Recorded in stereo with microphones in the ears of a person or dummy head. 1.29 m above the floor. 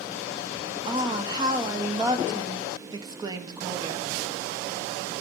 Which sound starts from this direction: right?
A woman speaking, at 0.9 s.